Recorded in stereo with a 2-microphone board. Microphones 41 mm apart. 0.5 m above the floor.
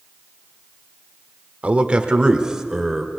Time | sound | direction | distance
1.6 | a man speaking | 30° right (ahead or behind) | 1.5 m